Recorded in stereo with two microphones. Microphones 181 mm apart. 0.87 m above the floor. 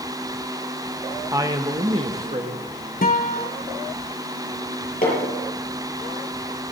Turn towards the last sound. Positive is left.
turn(degrees=50)  # may be behind; listen again after turning